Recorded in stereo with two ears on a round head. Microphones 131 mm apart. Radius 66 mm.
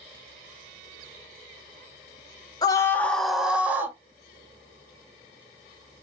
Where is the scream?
25° left (ahead or behind), 0.9 m; by 4.0 s 15° right (ahead or behind), 1.4 m.